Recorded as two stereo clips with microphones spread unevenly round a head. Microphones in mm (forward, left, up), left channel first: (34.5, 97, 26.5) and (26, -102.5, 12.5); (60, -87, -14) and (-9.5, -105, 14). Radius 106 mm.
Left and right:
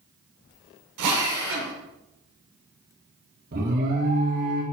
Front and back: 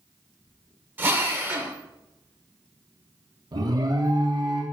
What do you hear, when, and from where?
1.0 s a drill: 110° right, 2 m
3.5 s an alarm: 135° right, 1.8 m